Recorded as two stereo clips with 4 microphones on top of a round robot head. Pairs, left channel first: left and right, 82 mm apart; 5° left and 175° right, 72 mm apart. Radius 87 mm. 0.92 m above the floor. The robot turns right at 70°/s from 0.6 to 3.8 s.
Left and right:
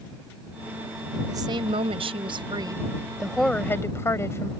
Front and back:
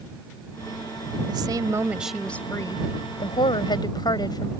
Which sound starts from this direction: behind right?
A woman speaking, at 1.3 s.